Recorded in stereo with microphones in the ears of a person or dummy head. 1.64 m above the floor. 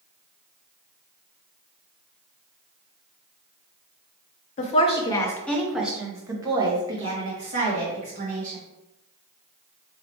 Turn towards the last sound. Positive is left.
turn(degrees=-50)  # may be behind; listen again after turning